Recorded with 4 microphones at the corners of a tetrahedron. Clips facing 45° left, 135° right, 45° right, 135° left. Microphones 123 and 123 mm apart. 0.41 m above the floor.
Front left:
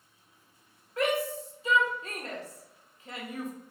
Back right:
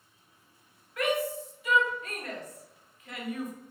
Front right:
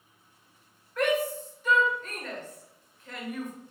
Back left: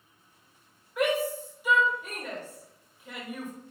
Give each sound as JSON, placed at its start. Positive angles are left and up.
{"t": 1.0, "sound": "a shout", "azimuth_deg": 65, "distance_m": 1.1}